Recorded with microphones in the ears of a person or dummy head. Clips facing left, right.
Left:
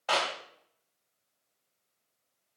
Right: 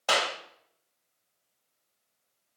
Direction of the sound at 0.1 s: 50° right (ahead or behind).